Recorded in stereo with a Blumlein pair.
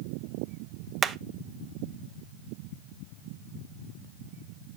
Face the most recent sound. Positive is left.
turn(degrees=-20)